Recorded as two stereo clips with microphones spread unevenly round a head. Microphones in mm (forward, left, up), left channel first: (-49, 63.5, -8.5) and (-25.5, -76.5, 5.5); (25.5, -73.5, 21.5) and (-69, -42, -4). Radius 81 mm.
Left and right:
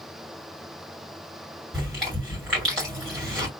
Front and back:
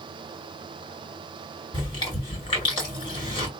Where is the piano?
No piano in this recording.